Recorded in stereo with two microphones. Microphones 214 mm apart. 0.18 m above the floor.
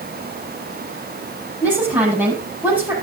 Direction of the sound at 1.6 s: 10° right (ahead or behind).